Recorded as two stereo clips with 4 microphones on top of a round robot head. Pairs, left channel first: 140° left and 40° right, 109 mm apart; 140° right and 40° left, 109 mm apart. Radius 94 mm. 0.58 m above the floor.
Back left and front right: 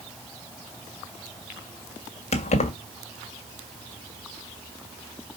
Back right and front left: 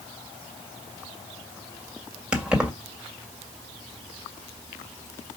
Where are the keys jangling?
125° left, 1.8 m.